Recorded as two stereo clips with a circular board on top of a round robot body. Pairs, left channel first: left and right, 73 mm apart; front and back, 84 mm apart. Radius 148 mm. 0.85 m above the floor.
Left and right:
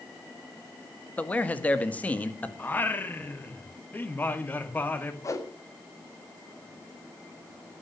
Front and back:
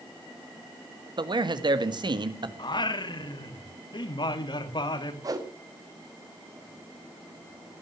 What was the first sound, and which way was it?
A man speaking, 160° left.